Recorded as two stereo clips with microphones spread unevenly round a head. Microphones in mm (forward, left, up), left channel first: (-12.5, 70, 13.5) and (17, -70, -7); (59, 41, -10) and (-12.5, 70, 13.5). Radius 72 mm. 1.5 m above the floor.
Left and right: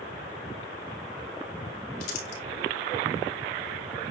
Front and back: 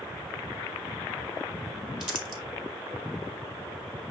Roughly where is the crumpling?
Left.